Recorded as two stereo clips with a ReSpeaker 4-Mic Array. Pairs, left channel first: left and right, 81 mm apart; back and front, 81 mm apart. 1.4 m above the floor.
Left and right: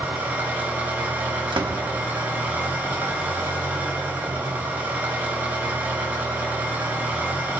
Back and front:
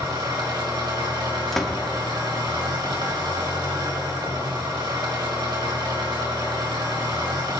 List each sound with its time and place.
0.0 s an engine running: 25° right, 4 m
1.5 s a door slam: 95° right, 1.1 m